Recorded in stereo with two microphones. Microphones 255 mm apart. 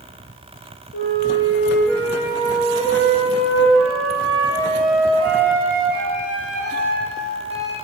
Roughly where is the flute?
Left.